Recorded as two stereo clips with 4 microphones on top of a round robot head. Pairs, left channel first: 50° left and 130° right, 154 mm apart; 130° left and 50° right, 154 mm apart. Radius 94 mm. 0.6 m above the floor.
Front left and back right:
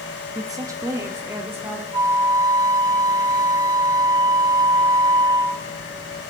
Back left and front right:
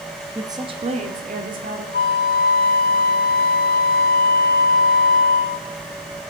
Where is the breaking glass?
I don't hear breaking glass.